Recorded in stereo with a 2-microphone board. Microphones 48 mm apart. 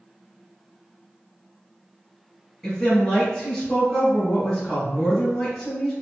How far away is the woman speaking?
About 1.9 m.